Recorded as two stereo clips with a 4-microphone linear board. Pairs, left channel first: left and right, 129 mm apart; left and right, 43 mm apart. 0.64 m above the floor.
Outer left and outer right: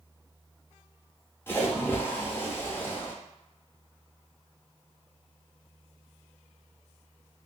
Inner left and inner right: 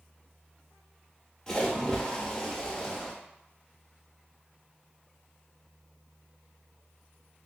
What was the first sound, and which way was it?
A splash, 15° left (ahead or behind).